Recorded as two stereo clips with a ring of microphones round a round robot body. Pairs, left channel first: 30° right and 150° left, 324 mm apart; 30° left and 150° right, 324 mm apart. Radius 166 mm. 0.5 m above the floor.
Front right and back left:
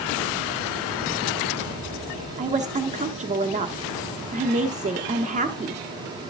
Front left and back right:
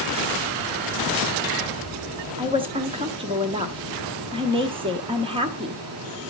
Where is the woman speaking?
165° left, 0.7 m.